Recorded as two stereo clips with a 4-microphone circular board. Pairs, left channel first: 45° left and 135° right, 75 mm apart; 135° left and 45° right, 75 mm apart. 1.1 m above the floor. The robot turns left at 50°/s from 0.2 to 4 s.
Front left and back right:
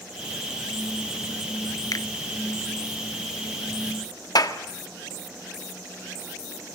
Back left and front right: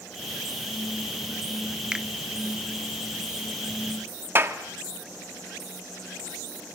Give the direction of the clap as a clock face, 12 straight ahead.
12 o'clock.